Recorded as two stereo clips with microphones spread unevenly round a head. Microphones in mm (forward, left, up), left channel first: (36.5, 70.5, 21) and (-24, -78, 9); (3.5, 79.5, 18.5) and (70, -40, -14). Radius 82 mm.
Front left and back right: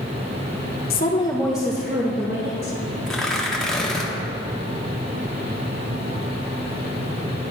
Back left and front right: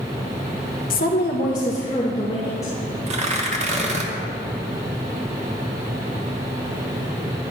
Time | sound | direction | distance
0.9 | a woman speaking | 95° left | 0.6 m
3.1 | tearing paper | 20° right | 1.0 m